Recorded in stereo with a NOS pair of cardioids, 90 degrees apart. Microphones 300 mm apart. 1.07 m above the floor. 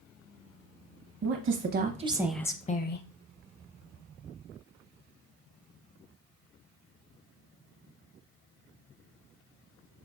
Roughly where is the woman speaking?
Ahead right.